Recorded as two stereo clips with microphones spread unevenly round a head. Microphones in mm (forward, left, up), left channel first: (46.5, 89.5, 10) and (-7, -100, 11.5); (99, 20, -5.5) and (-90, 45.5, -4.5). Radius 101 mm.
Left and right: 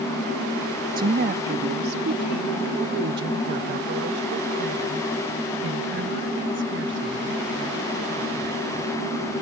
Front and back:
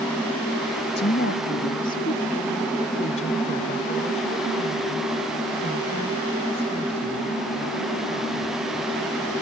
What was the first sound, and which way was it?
A woman speaking, 55° right.